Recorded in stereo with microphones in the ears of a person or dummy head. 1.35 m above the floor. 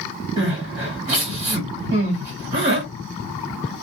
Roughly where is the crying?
Right.